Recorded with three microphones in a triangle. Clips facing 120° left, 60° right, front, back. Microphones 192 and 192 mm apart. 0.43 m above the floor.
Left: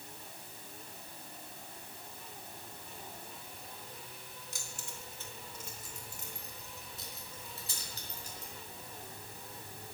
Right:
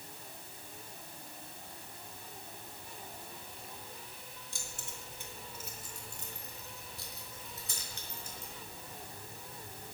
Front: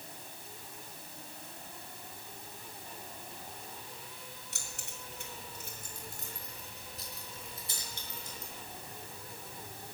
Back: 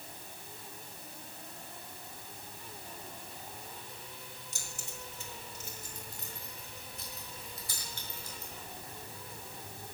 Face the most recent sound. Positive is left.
turn(degrees=75)